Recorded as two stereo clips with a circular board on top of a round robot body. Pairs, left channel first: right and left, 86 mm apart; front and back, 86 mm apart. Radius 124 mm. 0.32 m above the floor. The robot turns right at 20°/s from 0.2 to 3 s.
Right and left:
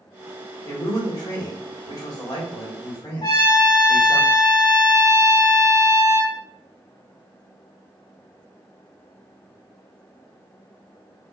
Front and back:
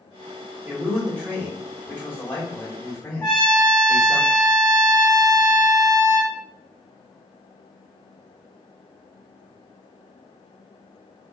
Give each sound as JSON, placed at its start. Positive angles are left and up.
{"t": 0.7, "sound": "a man speaking", "azimuth_deg": -90, "distance_m": 1.9}
{"t": 3.2, "sound": "a trumpet", "azimuth_deg": -60, "distance_m": 1.8}